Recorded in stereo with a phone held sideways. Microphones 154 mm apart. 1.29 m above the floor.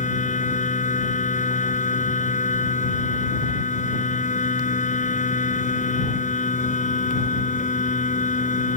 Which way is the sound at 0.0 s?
55° left (ahead or behind).